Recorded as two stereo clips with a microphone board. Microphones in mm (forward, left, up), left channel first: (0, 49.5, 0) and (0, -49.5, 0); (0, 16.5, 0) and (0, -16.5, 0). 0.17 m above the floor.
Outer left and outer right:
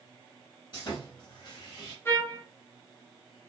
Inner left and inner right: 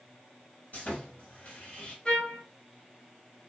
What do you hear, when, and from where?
0.7 s sawing: 50° left (ahead or behind), 1.3 m
2.0 s a trumpet: 25° left (ahead or behind), 0.8 m